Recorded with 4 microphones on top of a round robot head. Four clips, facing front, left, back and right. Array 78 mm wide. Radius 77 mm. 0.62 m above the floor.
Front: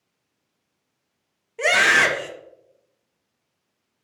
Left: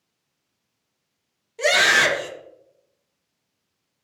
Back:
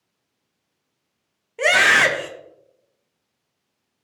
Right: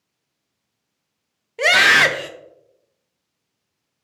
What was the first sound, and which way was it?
A scream, 100° right.